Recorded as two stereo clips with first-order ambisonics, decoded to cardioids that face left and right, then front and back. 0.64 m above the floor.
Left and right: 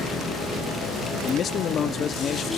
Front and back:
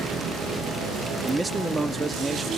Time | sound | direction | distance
1.2 | a man speaking | 110° left | 0.5 m